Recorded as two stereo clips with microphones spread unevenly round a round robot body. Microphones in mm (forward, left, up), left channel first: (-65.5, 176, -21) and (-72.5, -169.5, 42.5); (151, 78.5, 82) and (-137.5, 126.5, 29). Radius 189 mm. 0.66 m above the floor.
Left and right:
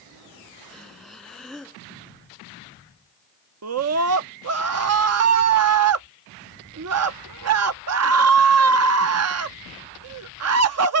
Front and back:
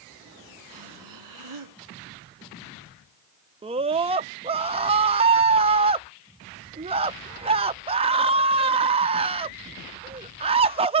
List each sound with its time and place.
0.7 s breathing: straight behind
3.6 s a scream: 135° right